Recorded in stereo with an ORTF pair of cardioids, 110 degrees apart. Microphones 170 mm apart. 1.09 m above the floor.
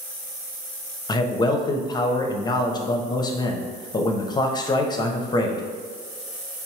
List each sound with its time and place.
1.1 s a man speaking: 25° left, 0.8 m